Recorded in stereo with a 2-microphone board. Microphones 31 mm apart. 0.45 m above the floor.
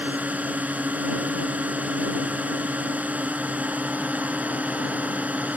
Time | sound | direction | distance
0.0 | a drone | 60° right (ahead or behind) | ?